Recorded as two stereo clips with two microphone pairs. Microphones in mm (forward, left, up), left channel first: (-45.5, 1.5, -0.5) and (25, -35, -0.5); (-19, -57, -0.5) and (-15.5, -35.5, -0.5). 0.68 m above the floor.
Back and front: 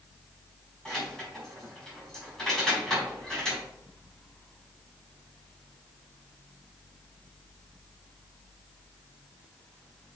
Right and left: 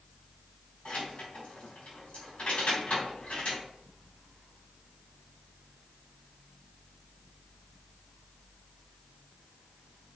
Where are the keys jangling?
125° right, 3.5 m.